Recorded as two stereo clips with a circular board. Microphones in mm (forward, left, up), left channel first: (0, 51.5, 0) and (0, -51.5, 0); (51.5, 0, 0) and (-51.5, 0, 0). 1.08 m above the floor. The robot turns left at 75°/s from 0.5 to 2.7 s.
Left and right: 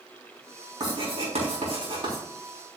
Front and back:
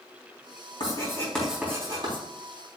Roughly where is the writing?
Ahead right.